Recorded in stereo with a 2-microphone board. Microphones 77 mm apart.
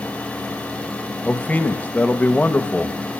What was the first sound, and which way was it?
A man speaking, 20° left (ahead or behind).